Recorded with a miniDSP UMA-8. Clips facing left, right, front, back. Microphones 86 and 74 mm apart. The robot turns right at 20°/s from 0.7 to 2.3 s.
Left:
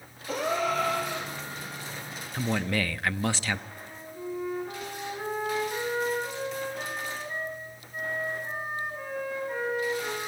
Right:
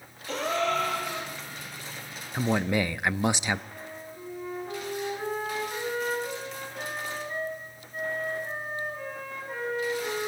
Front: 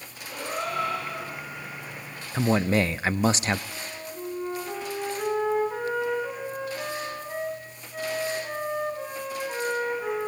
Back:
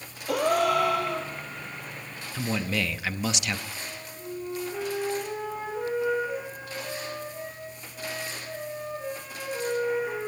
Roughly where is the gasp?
Behind.